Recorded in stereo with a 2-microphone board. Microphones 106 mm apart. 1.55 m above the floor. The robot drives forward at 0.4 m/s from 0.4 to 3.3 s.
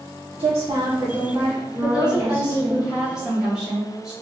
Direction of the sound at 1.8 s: 10° right (ahead or behind).